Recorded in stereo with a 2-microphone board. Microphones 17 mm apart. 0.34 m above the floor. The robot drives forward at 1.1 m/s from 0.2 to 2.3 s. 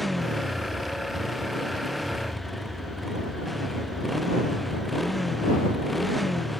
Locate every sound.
0.0 s a motorcycle: centre (ahead or behind)